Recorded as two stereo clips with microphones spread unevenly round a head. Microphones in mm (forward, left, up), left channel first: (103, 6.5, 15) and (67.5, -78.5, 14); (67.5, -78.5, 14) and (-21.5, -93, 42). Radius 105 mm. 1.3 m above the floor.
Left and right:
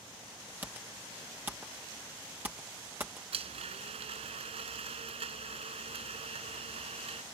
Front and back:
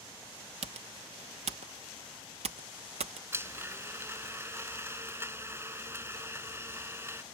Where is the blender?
110° right.